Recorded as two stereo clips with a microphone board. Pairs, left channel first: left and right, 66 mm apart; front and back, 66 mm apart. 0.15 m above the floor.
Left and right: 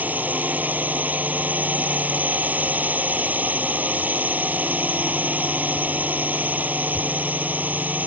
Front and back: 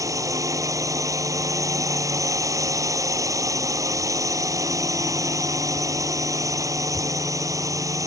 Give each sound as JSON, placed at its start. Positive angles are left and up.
{"t": 0.0, "sound": "a drone", "azimuth_deg": -155}